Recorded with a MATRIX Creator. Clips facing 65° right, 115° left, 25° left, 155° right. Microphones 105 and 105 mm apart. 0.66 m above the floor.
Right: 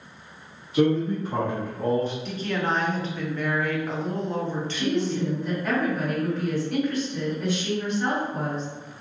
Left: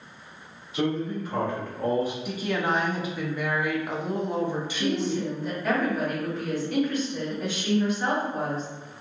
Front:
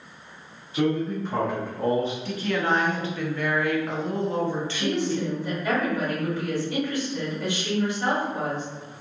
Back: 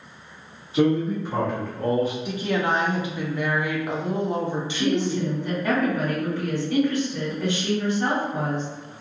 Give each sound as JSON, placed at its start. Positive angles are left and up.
{"t": 0.7, "sound": "a man speaking", "azimuth_deg": -95, "distance_m": 1.1}
{"t": 2.2, "sound": "a woman speaking", "azimuth_deg": 170, "distance_m": 0.5}
{"t": 4.7, "sound": "a woman speaking", "azimuth_deg": -160, "distance_m": 1.9}